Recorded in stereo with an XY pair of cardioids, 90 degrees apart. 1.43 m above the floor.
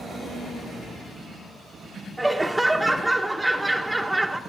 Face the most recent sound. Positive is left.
turn(degrees=-5)